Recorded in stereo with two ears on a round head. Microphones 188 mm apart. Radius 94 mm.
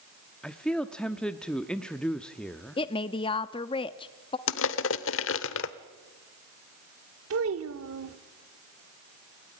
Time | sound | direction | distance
0.4 | a man speaking | 5° left (ahead or behind) | 0.9 m
2.8 | a woman speaking | 25° left (ahead or behind) | 0.6 m
4.5 | crushing | 65° left (ahead or behind) | 1.0 m
7.3 | a child speaking | 75° right (ahead or behind) | 1.1 m